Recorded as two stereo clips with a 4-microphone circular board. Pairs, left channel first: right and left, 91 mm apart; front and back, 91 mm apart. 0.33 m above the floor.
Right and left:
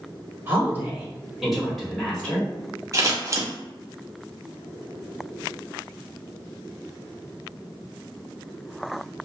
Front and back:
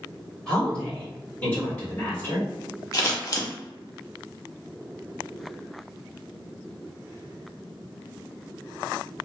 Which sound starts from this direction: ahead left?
Scissors, at 2.9 s.